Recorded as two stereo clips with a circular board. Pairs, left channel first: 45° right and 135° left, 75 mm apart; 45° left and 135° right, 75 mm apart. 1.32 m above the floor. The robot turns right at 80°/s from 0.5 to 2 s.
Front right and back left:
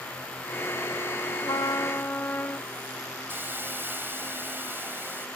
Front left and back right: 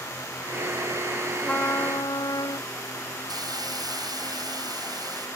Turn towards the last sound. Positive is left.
turn(degrees=-160)